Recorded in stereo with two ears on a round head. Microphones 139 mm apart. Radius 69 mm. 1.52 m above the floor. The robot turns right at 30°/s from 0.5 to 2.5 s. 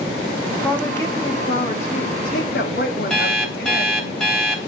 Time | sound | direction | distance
0.6 | a woman speaking | 5° left | 3.5 m
3.1 | an alarm clock | 5° left (ahead or behind) | 3 m